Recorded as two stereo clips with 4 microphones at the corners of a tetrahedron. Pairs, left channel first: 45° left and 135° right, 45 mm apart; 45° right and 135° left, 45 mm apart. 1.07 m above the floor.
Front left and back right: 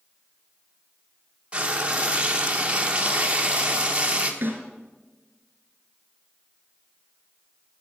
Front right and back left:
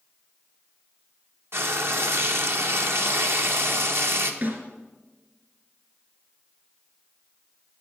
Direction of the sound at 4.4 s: Straight behind.